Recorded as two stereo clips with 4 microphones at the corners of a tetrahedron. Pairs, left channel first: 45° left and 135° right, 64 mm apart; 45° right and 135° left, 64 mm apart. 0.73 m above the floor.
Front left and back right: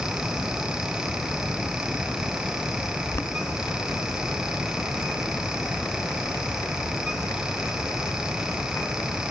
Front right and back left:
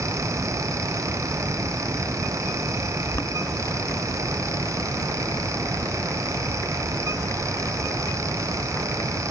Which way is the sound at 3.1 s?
Straight ahead.